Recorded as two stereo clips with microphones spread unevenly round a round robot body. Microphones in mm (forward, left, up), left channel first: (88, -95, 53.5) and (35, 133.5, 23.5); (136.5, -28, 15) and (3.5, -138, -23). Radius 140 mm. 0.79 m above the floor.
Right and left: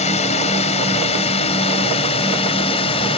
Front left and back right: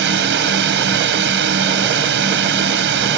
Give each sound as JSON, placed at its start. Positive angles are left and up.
{"t": 0.0, "sound": "a drone", "azimuth_deg": -145}